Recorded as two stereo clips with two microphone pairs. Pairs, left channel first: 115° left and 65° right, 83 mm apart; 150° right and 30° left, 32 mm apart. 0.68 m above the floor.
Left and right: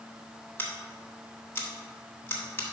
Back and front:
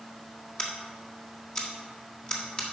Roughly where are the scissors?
Behind.